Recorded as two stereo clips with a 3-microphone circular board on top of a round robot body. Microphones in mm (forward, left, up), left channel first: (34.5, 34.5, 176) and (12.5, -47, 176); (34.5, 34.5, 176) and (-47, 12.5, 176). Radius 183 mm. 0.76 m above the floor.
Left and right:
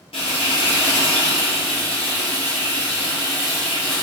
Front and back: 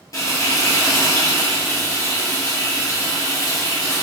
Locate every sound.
0.1 s frying: 70° left, 0.6 m